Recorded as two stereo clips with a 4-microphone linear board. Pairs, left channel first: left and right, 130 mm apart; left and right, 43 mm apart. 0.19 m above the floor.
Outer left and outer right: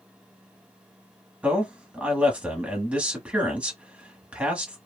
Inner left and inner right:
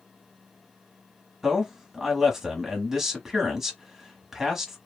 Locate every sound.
1.4 s a man speaking: 10° right (ahead or behind), 1.1 m